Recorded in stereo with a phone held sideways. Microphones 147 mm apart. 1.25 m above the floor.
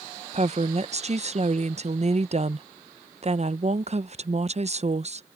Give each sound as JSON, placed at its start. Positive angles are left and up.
{"t": 0.3, "sound": "a woman speaking", "side_deg": -45}